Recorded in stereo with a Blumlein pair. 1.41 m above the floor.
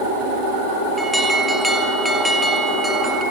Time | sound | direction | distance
1.0 | an alarm | straight ahead | 1.9 m